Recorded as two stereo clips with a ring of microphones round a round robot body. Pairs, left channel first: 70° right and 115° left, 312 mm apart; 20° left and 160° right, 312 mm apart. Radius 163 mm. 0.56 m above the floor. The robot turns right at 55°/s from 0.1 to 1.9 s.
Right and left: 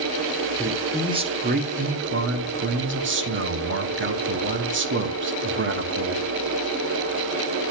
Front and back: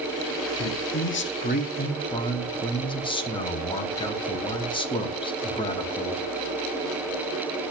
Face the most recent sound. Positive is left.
turn(degrees=90)